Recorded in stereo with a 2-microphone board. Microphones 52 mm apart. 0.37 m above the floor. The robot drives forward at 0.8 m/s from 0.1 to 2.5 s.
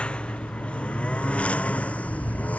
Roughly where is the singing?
I don't hear singing.